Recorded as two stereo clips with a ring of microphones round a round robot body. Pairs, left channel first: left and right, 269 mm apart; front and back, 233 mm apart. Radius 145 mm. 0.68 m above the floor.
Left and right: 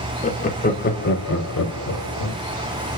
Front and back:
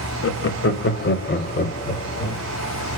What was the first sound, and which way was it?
Laughter, 25° left.